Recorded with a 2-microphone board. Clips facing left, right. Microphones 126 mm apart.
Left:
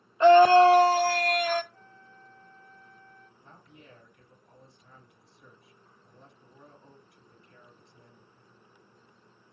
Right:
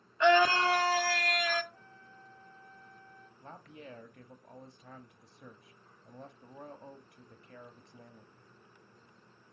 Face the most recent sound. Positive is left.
turn(degrees=-75)  # may be behind; listen again after turning